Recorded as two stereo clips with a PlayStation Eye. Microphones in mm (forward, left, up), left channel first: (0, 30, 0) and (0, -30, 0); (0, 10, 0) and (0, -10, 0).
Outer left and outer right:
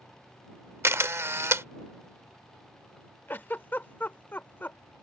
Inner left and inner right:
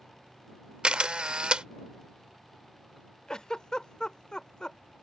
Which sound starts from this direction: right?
A camera shutter, at 0.8 s.